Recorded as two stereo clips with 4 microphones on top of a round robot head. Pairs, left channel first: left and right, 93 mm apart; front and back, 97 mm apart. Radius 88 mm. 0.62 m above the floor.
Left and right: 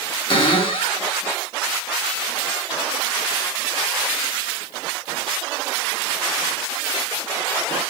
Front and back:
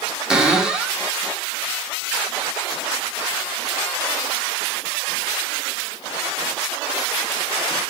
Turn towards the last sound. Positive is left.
turn(degrees=100)